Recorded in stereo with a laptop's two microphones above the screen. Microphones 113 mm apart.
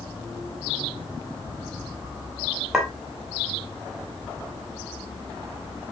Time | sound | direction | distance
2.7 | a clink | 5° right (ahead or behind) | 2.5 m